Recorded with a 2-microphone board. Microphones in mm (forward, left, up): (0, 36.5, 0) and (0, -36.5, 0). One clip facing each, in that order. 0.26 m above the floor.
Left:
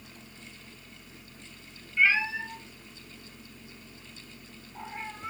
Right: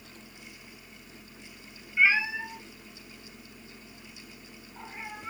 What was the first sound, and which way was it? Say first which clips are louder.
A cat meowing: right 1 dB; 20° right (ahead or behind).